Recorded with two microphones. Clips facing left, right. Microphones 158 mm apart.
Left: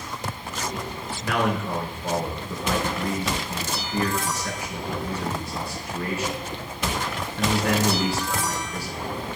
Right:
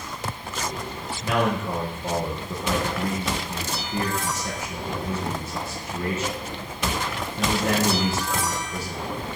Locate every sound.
1.2 s a man speaking: 25° right (ahead or behind), 3 m